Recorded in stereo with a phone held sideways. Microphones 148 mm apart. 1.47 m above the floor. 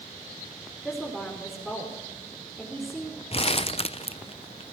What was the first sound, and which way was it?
A woman speaking, centre (ahead or behind).